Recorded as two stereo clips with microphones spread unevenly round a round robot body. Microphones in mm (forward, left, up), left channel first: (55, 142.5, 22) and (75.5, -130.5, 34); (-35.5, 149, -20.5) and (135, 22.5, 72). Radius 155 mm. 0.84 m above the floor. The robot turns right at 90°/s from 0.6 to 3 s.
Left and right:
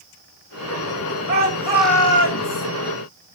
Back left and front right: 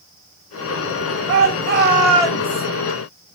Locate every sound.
1.3 s a shout: 45° right, 5 m; by 2.7 s 80° left, 5 m